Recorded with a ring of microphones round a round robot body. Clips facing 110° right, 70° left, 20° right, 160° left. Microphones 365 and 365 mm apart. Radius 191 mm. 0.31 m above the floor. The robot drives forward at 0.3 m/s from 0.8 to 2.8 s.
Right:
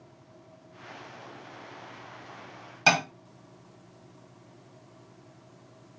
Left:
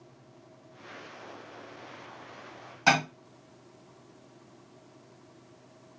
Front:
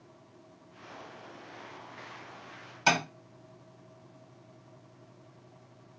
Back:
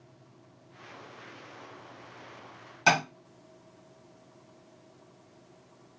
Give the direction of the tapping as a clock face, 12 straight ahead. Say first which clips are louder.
Even, back 2 dB; 4 o'clock.